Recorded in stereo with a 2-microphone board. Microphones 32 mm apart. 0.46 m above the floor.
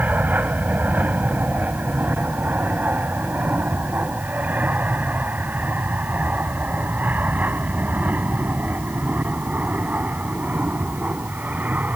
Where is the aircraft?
60° right (ahead or behind).